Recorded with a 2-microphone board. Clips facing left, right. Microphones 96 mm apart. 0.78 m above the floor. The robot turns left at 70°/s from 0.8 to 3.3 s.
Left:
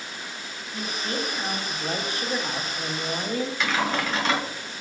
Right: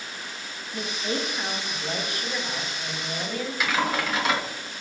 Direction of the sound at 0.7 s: 135° right.